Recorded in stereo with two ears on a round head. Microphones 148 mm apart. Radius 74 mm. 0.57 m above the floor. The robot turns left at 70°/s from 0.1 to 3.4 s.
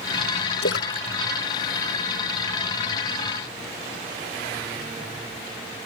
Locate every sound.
0.6 s a splash: 85° left; by 2.8 s 60° right (ahead or behind)